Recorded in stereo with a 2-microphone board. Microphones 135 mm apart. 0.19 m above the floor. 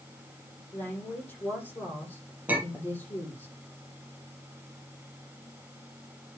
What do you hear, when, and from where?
0.7 s a woman speaking: 15° left (ahead or behind), 8.5 m
2.5 s a clink: 15° right (ahead or behind), 3.5 m